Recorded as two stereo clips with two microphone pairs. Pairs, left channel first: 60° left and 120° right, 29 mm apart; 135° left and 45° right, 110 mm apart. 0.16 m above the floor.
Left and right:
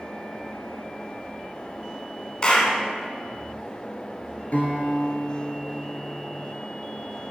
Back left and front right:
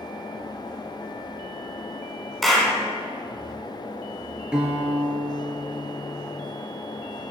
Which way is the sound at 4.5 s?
35° left.